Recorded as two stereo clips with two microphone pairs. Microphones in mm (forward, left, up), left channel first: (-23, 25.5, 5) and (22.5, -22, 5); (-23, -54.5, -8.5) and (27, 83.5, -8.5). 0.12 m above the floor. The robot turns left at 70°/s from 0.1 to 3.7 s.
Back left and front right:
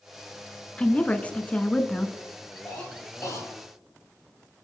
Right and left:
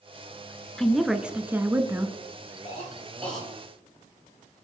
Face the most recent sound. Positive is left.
turn(degrees=140)